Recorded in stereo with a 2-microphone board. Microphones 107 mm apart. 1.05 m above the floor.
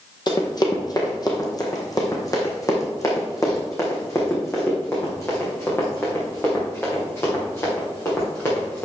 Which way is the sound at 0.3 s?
40° left (ahead or behind).